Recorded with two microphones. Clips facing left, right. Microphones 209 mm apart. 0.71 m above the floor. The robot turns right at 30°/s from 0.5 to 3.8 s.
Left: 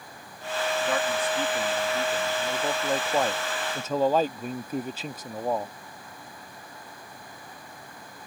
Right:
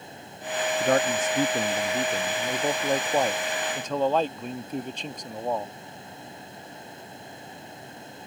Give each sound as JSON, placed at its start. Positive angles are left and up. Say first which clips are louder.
{"t": 0.8, "sound": "a man speaking", "louder": "right 7 dB", "azimuth_deg": -85}